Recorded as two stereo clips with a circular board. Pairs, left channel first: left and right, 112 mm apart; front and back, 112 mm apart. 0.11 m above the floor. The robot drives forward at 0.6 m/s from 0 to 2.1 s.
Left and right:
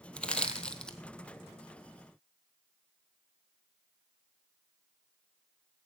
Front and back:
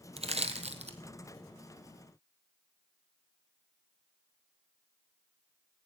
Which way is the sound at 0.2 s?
170° left.